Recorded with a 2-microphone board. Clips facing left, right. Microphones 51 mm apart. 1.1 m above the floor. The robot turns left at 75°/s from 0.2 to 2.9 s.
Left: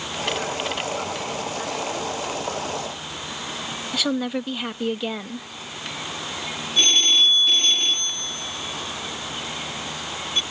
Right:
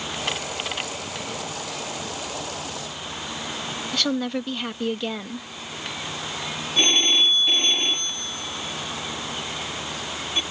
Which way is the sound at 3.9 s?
5° left (ahead or behind).